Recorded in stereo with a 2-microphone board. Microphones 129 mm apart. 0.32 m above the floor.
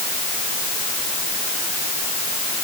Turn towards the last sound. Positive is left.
No sound to turn to.